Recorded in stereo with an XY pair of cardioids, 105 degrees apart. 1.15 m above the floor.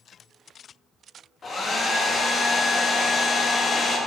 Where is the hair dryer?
40° left, 1.2 m.